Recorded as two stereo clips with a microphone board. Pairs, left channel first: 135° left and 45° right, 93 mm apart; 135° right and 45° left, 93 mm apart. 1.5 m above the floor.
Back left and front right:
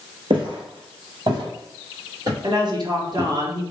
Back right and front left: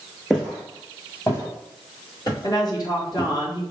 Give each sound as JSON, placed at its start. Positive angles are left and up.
{"t": 0.3, "sound": "footsteps", "azimuth_deg": -50, "distance_m": 2.5}
{"t": 2.4, "sound": "a woman speaking", "azimuth_deg": -90, "distance_m": 1.4}